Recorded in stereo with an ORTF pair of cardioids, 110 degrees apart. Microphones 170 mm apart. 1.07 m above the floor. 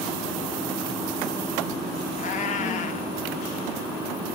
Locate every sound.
2.2 s a cat meowing: 45° left, 1.4 m